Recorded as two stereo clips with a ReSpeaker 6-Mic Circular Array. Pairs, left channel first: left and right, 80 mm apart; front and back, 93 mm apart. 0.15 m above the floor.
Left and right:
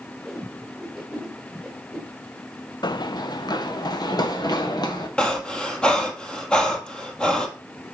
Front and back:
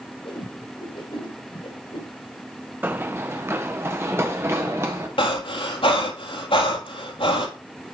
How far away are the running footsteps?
About 0.6 m.